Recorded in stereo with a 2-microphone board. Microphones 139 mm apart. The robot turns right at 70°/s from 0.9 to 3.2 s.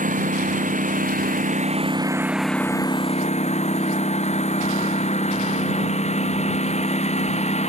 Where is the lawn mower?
105° right; by 7.7 s 55° left.